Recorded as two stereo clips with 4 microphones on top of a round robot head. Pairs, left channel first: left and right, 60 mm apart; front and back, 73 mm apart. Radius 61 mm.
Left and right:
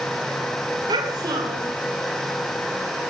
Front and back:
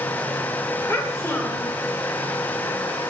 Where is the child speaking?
70° right, 2 m.